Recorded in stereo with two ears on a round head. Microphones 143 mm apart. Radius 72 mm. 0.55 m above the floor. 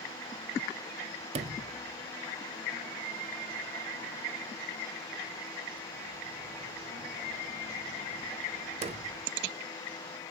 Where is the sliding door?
40° right (ahead or behind), 0.5 m.